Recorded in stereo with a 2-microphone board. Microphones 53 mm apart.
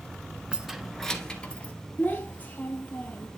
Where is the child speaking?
30° left (ahead or behind), 2.5 m.